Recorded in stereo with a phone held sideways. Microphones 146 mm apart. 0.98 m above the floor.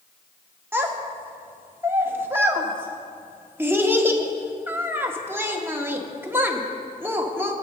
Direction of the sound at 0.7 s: 15° right (ahead or behind).